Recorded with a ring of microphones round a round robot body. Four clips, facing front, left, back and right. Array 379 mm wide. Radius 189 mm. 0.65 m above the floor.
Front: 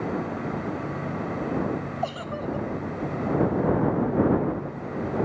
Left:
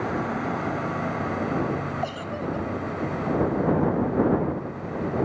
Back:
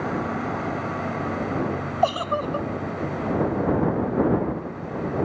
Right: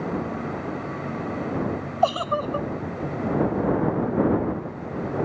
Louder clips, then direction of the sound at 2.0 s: Right 7 dB, back 7 dB; 135° right.